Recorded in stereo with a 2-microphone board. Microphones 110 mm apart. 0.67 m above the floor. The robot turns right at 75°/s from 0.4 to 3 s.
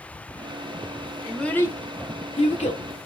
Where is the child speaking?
5° right (ahead or behind), 1.0 m; by 2.8 s 65° left (ahead or behind), 1.0 m.